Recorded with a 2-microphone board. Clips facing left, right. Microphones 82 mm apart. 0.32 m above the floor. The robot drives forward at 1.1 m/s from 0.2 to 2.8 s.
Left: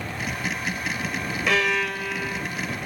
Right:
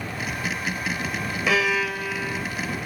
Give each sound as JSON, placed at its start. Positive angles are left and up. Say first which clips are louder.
{"t": 1.5, "sound": "a violin", "louder": "right 1 dB", "side_deg": -5}